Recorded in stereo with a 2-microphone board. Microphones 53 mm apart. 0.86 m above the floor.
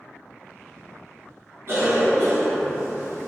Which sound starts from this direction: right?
A cough, at 1.7 s.